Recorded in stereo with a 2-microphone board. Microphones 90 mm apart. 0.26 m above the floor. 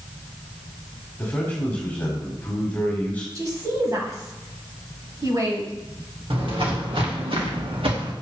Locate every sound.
1.2 s a man speaking: 15° left (ahead or behind), 1.5 m
3.4 s a woman speaking: 40° right (ahead or behind), 1.7 m
6.3 s footsteps: 70° right (ahead or behind), 3 m; by 8.1 s 85° right, 2.5 m